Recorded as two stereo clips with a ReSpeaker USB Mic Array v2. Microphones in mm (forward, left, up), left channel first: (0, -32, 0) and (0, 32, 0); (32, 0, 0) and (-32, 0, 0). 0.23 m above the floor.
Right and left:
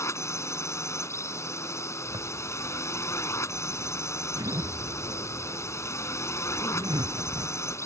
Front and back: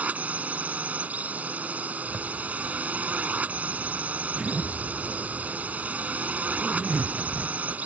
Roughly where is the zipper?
Left.